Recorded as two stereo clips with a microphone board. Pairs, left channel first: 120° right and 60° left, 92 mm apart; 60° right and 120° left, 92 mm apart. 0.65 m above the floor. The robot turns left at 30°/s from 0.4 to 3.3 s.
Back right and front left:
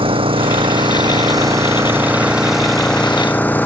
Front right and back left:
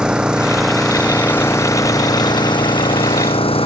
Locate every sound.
0.0 s an engine running: 40° left; by 3.7 s 50° right